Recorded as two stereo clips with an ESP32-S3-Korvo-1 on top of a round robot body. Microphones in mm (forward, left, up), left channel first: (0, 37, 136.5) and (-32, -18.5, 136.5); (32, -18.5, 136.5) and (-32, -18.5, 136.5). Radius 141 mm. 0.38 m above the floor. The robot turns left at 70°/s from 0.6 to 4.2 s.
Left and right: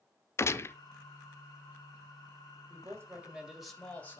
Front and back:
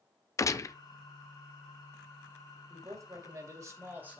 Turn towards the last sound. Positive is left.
turn(degrees=110)